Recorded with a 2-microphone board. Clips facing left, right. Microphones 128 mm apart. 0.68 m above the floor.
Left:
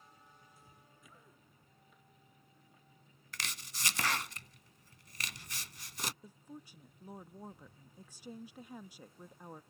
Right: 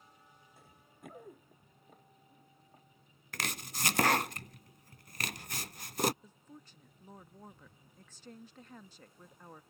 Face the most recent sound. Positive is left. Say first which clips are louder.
# left 4 dB
turn(degrees=10)  # may be behind; listen again after turning